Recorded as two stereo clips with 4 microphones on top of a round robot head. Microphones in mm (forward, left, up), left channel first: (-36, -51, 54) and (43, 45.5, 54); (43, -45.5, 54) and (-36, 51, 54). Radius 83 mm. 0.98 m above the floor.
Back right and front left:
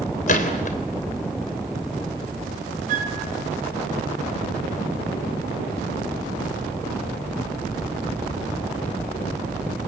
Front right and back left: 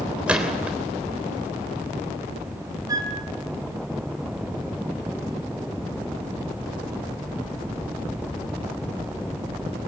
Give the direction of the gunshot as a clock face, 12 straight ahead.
5 o'clock.